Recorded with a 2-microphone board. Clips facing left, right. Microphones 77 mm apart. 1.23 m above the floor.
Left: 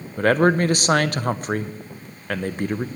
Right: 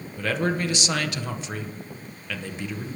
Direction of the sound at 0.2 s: 45° left (ahead or behind).